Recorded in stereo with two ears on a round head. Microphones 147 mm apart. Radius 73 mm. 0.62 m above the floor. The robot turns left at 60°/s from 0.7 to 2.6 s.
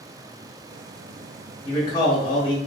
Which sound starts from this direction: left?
A man speaking, at 1.6 s.